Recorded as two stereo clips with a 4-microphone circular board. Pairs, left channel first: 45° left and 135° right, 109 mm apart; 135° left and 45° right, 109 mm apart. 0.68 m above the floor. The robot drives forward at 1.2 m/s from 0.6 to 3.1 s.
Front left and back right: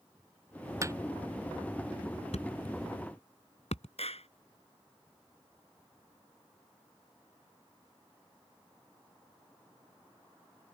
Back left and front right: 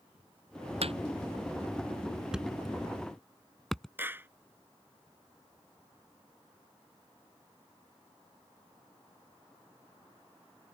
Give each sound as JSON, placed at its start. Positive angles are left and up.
{"t": 0.8, "sound": "hammering", "azimuth_deg": -75}
{"t": 2.3, "sound": "a thud", "azimuth_deg": 40}
{"t": 4.0, "sound": "a clap", "azimuth_deg": 25}